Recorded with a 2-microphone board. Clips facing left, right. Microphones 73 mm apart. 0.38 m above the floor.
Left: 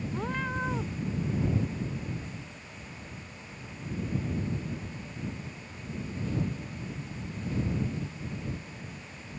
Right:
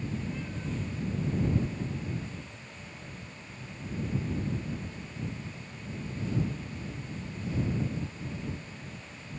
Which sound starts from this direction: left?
A cat meowing, at 0.1 s.